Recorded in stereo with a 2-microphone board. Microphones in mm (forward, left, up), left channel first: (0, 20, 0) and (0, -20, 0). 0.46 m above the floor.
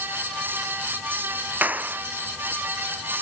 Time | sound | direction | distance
1.6 | a clap | 45° right (ahead or behind) | ?